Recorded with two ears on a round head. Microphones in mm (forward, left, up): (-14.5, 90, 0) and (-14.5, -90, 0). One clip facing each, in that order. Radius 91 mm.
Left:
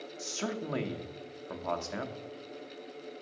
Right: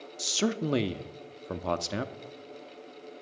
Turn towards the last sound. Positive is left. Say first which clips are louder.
# right 7 dB
turn(degrees=-45)  # may be behind; listen again after turning